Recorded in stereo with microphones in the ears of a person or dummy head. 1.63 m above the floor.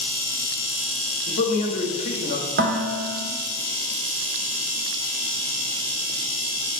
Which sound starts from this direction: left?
A man speaking, at 1.3 s.